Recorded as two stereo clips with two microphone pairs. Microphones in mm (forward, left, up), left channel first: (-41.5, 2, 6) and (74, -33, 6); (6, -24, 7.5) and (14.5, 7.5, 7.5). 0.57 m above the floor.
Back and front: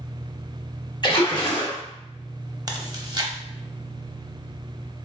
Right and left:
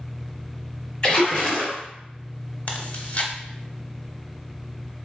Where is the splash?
155° right, 1.2 m.